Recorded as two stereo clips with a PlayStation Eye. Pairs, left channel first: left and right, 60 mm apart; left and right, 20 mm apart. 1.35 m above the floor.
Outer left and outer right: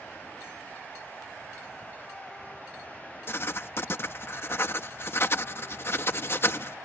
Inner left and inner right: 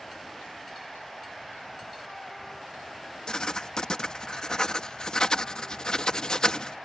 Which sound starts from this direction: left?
Writing, at 3.3 s.